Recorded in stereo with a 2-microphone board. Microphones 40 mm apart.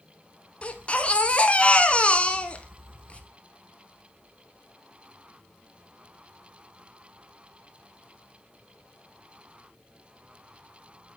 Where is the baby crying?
30° left (ahead or behind), 0.9 m.